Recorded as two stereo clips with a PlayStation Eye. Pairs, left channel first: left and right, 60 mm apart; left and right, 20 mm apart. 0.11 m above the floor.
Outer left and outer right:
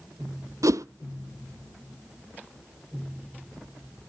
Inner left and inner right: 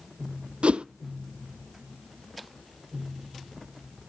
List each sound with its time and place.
0.6 s a whoosh: 65° right (ahead or behind), 0.6 m